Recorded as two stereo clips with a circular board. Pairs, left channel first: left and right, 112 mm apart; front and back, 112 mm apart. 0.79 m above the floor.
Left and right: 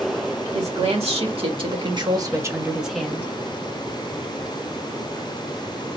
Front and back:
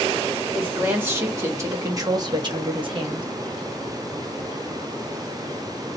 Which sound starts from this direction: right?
A woman speaking, at 0.5 s.